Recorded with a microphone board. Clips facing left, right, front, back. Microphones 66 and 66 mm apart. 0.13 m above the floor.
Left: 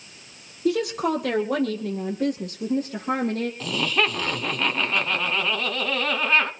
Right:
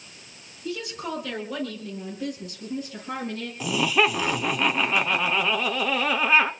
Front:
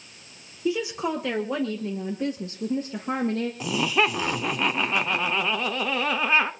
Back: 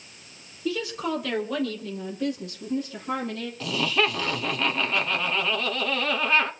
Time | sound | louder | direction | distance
0.7 | a woman speaking | left 9 dB, front 2 dB | 70° left | 2.5 m
3.6 | laughter | right 5 dB, even | 35° right | 1.1 m